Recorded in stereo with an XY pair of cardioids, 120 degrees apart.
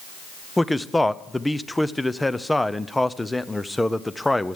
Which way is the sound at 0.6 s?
10° left.